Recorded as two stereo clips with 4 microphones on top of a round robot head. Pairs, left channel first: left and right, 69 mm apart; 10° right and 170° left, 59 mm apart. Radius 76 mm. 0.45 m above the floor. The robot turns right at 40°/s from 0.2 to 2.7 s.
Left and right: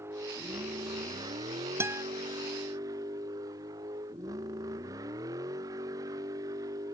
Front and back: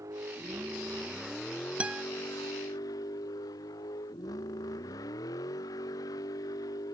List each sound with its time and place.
0.0 s a vehicle: 140° right; by 6.9 s 40° right
1.8 s a guitar: 130° right; by 2.0 s 120° right